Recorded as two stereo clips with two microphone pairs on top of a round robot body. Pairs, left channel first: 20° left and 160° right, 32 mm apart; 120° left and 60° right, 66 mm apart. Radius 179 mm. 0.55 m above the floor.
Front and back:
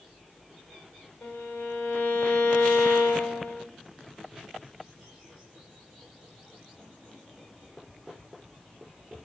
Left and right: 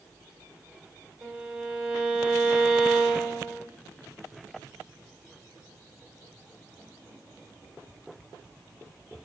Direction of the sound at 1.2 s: 15° left.